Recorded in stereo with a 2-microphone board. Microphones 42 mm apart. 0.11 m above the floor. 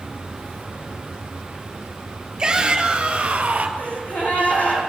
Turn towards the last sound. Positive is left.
turn(degrees=45)  # may be behind; listen again after turning